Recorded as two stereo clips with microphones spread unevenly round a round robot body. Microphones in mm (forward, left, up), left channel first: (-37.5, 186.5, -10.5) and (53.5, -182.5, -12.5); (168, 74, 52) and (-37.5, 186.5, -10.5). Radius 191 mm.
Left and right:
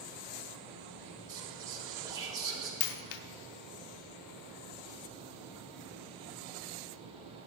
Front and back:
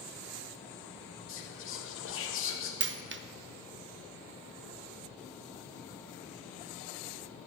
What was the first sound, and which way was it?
Whispering, straight ahead.